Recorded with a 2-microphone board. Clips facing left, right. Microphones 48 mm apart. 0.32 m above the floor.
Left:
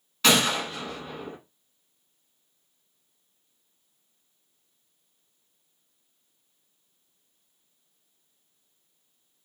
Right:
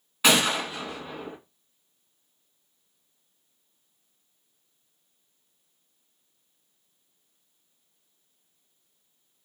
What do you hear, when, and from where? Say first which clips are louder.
0.2 s a gunshot: even; 15° right (ahead or behind), 0.8 m